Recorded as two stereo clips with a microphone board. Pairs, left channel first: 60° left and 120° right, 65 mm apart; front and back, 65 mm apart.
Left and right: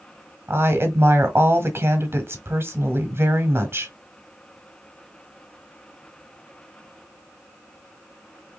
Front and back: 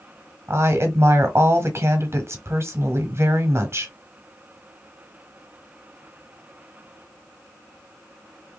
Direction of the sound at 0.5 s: 155° right.